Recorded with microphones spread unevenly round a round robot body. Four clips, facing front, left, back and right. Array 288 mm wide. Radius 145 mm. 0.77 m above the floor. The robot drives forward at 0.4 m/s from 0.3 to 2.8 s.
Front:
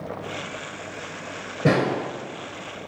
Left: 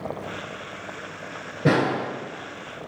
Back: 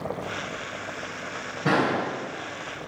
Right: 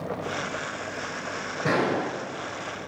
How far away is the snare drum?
About 1.6 m.